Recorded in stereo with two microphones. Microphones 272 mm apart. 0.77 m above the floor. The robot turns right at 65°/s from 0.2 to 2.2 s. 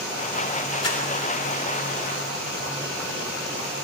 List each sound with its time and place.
0.8 s crumpling: 60° left (ahead or behind), 3.5 m; by 1.0 s 50° left (ahead or behind), 3.5 m